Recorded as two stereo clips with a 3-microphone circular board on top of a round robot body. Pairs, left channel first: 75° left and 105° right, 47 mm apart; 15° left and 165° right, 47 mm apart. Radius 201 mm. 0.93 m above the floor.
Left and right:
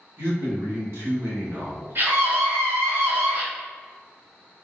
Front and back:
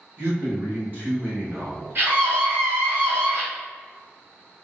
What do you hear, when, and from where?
0.2 s a man speaking: 115° right, 1.6 m
1.9 s a scream: 125° right, 1.9 m